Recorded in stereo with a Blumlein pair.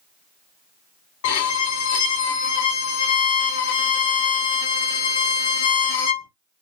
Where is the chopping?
No chopping in this recording.